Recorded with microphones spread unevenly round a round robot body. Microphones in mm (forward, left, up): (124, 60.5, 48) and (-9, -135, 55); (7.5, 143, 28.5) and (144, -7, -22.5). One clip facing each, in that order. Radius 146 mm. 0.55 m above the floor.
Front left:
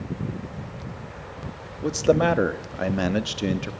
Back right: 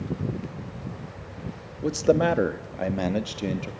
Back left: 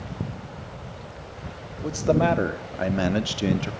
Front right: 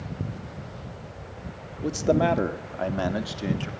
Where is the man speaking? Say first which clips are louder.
Front left 1 dB, back left 1 dB; 40° right, 1.1 m; by 3.7 s 110° left, 1.1 m.